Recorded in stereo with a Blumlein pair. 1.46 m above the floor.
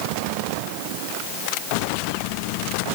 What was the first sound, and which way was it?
Only background noise.